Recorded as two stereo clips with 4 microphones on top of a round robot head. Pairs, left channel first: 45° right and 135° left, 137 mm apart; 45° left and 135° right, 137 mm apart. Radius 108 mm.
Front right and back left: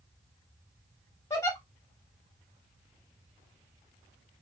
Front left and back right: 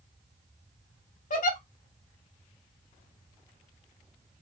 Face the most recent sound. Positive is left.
turn(degrees=25)